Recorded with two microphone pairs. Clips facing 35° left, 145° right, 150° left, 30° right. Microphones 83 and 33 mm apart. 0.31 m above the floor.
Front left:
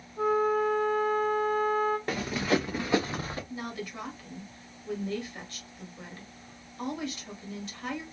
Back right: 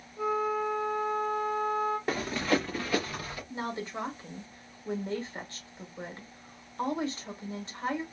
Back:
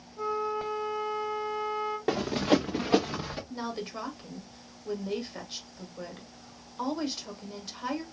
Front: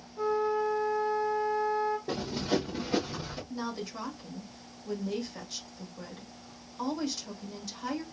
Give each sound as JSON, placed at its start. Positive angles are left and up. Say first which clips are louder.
{"t": 0.2, "sound": "a flute", "louder": "front left 4 dB, front 3 dB", "azimuth_deg": 45, "distance_m": 2.5}
{"t": 2.1, "sound": "running footsteps", "louder": "even, back 5 dB", "azimuth_deg": 130, "distance_m": 1.3}
{"t": 3.5, "sound": "a woman speaking", "louder": "back right 2 dB, front 2 dB", "azimuth_deg": -170, "distance_m": 1.4}